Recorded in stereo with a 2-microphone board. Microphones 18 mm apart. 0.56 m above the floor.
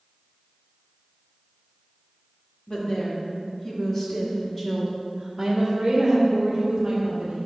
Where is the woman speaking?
50° left (ahead or behind), 1.8 m; by 7.3 s 35° right (ahead or behind), 2 m.